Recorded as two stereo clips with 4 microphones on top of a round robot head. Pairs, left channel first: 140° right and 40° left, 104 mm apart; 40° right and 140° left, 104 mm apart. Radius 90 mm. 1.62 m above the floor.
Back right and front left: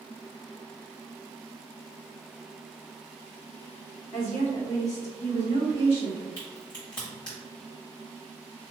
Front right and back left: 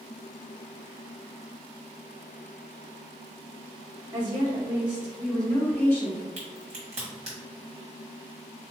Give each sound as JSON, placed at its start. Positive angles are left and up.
{"t": 4.1, "sound": "a woman speaking", "azimuth_deg": -175, "distance_m": 1.0}
{"t": 6.4, "sound": "a crack", "azimuth_deg": 165, "distance_m": 1.0}